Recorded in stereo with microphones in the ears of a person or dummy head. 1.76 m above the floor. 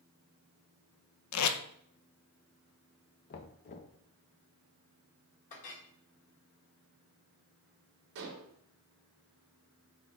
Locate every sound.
1.3 s tape being pulled: 90° left, 0.6 m
3.3 s knocking: 30° left (ahead or behind), 0.6 m
5.5 s a clink: 40° left (ahead or behind), 1.5 m
8.2 s dishes clattering: 65° right (ahead or behind), 1.9 m